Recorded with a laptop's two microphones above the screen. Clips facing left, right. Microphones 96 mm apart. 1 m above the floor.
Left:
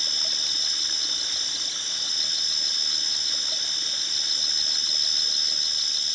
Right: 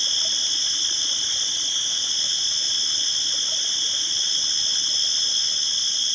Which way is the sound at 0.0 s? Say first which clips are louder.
Right 3 dB; 5° left (ahead or behind).